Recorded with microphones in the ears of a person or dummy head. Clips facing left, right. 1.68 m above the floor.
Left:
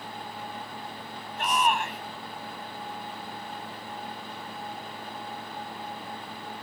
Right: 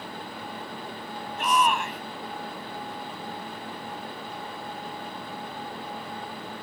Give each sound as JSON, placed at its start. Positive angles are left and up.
{"t": 1.4, "sound": "a shout", "side_deg": -65}